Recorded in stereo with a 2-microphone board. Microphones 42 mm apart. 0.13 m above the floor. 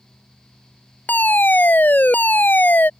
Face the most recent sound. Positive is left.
turn(degrees=50)  # may be behind; listen again after turning